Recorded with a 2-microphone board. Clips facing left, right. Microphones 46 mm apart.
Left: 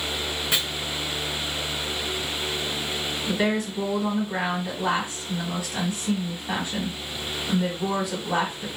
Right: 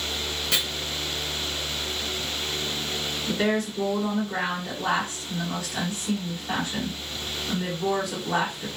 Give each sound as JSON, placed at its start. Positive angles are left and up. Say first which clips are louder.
{"t": 0.5, "sound": "chopping", "louder": "left 1 dB", "side_deg": 20, "distance_m": 0.8}
{"t": 3.3, "sound": "a woman speaking", "louder": "even", "side_deg": 20, "distance_m": 1.6}